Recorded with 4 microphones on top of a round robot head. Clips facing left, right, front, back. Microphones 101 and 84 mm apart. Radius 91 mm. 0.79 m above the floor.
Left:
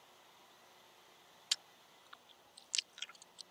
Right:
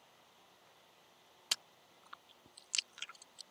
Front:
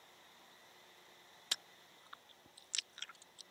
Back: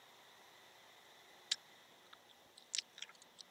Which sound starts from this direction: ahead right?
Chewing, at 1.5 s.